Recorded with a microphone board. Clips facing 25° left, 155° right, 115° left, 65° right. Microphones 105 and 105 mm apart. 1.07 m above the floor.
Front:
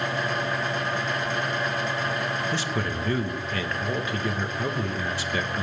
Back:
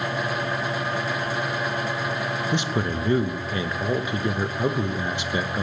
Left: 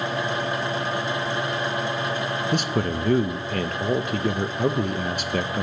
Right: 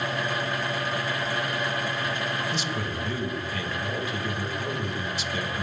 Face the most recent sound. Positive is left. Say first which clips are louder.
# back 3 dB, left 6 dB
turn(degrees=135)